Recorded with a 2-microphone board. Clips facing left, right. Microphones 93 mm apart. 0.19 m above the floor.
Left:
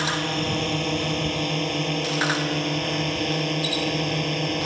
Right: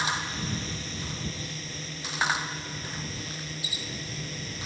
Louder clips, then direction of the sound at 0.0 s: Left 6 dB; 70° left (ahead or behind).